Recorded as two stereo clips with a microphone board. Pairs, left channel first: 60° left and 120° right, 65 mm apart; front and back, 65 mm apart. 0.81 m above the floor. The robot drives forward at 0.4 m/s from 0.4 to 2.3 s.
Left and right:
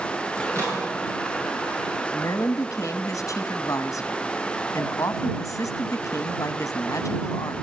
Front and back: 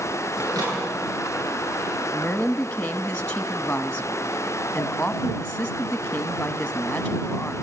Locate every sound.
0.4 s a microwave: 165° right, 10 m
2.1 s a woman speaking: 60° left, 0.7 m; by 7.6 s 65° left, 0.7 m